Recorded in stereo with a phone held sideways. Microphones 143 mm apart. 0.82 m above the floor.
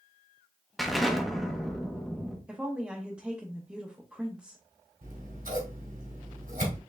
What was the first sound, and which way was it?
An explosion, centre (ahead or behind).